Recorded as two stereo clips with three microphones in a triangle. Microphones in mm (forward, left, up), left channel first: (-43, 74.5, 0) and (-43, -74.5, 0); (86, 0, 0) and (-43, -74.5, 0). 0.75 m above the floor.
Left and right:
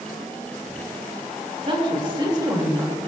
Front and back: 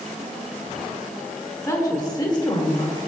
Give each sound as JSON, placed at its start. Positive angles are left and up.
{"t": 1.6, "sound": "a woman speaking", "azimuth_deg": -40, "distance_m": 2.0}